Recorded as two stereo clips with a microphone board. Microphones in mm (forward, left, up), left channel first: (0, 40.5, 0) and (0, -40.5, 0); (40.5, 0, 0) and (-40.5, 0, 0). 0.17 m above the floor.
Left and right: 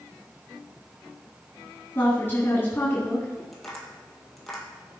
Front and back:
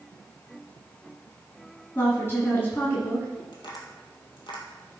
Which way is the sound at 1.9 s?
40° left.